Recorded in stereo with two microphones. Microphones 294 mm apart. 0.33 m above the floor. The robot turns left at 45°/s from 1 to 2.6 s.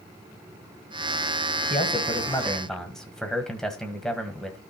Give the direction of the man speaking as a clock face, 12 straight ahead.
11 o'clock.